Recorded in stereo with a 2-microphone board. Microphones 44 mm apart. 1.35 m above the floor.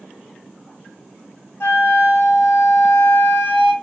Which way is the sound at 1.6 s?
70° left (ahead or behind).